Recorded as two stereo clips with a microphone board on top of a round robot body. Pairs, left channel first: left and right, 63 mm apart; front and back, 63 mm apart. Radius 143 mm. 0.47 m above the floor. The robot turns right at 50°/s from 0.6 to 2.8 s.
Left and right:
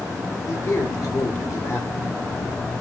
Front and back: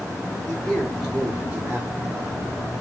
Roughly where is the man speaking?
Left.